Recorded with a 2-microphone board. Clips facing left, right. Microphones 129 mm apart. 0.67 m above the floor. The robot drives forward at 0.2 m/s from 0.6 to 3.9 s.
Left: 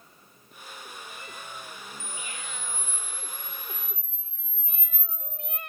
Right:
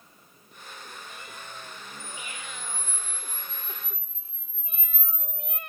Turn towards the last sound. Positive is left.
turn(degrees=35)  # may be behind; listen again after turning